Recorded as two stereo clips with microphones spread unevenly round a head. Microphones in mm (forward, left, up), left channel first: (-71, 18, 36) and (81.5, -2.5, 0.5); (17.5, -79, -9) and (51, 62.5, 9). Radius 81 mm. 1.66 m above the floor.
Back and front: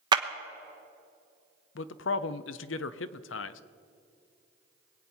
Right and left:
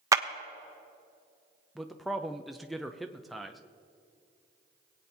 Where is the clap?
60° left, 0.7 m.